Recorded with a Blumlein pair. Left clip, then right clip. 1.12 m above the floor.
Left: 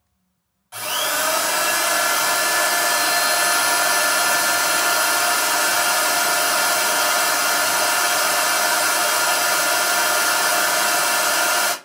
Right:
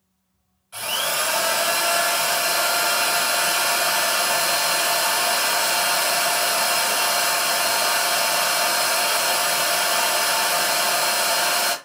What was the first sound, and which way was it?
A drill, 45° left.